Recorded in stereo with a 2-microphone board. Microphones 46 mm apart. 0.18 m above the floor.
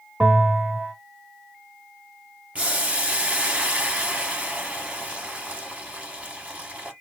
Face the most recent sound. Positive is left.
turn(degrees=-30)  # may be behind; listen again after turning